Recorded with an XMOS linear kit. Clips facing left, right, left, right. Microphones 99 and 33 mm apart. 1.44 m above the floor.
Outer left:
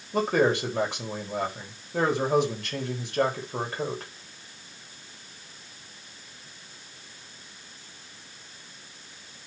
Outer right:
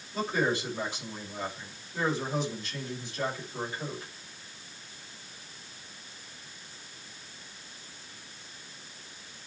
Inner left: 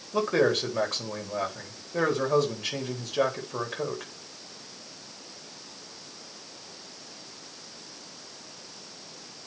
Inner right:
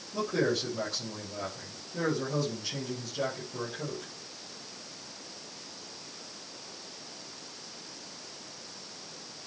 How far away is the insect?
No insect in this recording.